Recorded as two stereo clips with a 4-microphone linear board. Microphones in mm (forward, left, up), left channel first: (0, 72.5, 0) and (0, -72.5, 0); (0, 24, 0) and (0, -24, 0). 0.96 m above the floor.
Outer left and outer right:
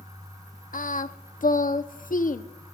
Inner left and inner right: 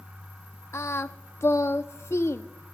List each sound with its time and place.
0.7 s singing: 65° left (ahead or behind), 0.6 m